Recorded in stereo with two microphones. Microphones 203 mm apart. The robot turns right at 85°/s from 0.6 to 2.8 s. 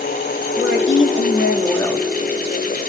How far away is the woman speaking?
About 1.7 m.